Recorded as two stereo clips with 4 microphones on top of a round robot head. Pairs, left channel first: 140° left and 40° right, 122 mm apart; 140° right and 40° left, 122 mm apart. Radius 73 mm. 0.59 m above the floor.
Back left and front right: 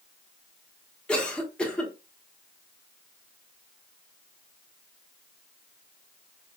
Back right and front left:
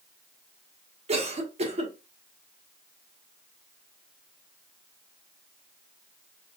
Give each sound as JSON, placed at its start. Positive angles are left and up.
{"t": 1.1, "sound": "a cough", "azimuth_deg": 60, "distance_m": 1.3}